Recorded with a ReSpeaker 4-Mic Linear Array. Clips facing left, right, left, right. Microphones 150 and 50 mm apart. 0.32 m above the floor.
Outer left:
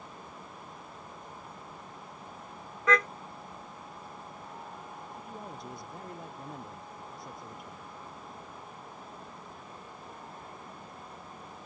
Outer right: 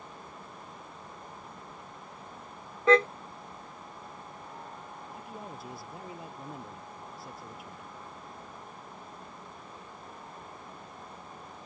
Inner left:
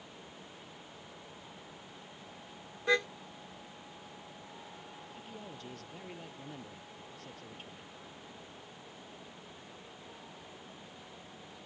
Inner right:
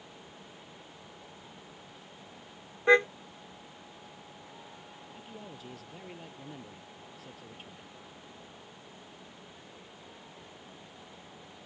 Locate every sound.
2.9 s a car horn: 30° right (ahead or behind)
5.1 s a man speaking: 5° right (ahead or behind)